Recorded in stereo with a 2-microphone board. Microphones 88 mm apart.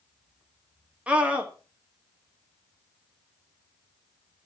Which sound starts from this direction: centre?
A scream, at 1.1 s.